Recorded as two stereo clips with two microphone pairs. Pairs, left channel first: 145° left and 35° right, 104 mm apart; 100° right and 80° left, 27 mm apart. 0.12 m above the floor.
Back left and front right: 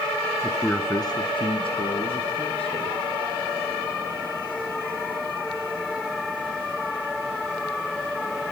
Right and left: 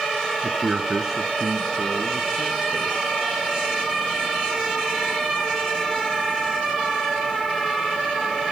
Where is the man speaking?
45° left, 1.2 m; by 3.0 s 160° left, 4 m.